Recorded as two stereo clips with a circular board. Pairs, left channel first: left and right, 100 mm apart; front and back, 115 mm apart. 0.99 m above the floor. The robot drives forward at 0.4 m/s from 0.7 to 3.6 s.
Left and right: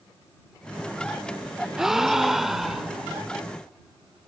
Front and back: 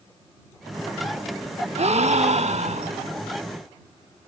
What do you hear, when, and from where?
1.8 s a gasp: 175° right, 1.1 m